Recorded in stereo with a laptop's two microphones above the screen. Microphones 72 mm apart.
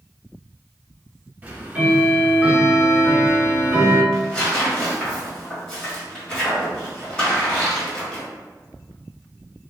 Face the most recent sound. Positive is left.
turn(degrees=15)  # may be behind; listen again after turning